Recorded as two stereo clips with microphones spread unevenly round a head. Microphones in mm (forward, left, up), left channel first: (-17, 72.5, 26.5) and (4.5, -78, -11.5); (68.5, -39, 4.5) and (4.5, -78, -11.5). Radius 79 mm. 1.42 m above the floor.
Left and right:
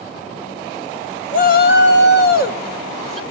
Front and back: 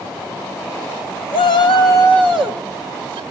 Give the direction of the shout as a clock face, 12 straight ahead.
10 o'clock.